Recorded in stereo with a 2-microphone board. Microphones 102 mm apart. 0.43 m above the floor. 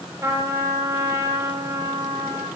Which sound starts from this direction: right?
A trumpet, at 0.2 s.